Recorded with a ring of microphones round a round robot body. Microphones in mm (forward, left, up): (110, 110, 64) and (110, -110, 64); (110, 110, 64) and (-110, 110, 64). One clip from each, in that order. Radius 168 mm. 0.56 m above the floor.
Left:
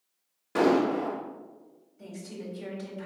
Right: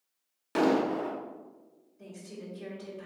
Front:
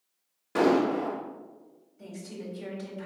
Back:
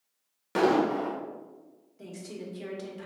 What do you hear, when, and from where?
0.6 s an explosion: 130° right, 0.8 m
2.0 s a woman speaking: 160° left, 1.7 m